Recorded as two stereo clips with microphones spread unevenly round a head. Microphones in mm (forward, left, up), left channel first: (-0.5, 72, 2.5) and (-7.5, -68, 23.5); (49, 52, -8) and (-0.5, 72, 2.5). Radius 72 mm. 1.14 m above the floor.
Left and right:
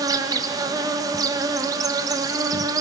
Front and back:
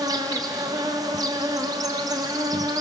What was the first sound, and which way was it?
An insect, 160° right.